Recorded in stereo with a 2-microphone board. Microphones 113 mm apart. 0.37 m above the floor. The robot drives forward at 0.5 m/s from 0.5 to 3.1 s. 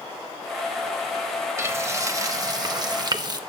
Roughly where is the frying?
Right.